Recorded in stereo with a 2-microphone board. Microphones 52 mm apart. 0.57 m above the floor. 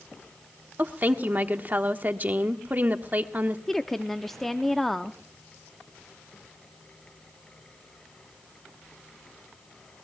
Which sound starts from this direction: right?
A woman speaking, at 0.8 s.